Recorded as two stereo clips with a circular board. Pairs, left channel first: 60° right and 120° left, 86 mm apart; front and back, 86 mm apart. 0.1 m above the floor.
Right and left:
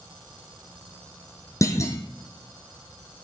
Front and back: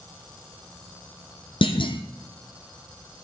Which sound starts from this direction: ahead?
A clunk, at 1.6 s.